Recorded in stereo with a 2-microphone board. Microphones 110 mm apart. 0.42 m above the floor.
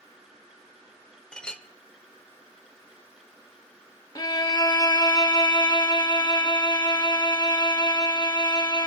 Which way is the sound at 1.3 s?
10° left (ahead or behind).